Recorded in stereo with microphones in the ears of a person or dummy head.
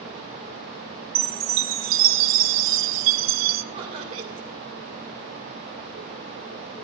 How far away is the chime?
About 0.7 m.